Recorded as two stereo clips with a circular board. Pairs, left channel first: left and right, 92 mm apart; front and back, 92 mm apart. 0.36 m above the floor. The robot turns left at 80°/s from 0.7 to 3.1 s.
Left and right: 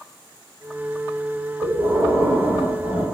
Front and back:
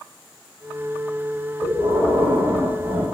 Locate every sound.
1.6 s breathing: 105° right, 1.4 m; by 3.0 s 140° left, 1.4 m